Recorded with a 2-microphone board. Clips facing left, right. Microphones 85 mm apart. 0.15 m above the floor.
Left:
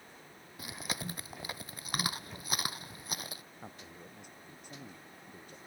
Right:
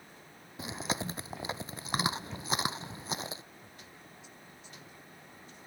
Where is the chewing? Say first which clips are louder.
Right 5 dB; 25° right (ahead or behind).